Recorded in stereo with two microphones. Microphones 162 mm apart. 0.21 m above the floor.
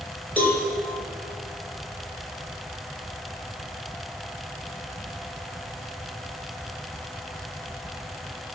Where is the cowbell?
10° left (ahead or behind), 3 m.